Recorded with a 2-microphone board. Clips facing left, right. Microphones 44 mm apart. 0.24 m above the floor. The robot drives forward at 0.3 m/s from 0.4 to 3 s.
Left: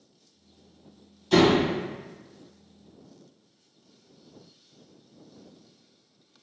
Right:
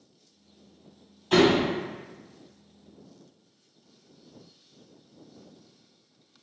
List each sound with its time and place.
1.3 s a door slam: 30° right (ahead or behind), 1.1 m